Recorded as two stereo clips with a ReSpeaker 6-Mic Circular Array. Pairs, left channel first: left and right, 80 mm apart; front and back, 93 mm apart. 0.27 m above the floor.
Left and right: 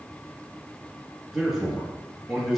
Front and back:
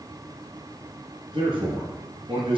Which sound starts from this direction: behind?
A man speaking, at 1.3 s.